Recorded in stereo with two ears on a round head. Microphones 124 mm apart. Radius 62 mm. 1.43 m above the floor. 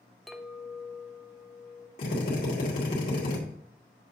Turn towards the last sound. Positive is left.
turn(degrees=70)  # may be behind; listen again after turning